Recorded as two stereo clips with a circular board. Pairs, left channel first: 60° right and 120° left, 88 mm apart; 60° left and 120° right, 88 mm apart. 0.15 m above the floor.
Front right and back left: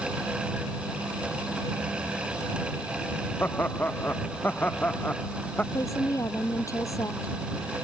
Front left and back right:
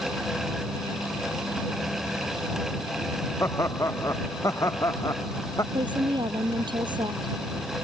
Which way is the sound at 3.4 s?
5° left.